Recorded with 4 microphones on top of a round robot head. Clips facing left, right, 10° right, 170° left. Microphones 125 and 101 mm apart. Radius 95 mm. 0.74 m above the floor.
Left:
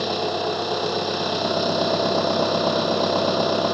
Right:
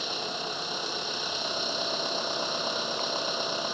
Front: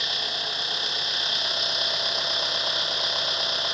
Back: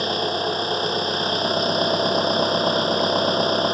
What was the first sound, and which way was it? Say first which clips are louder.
An engine running: left 12 dB, back 12 dB; 120° left.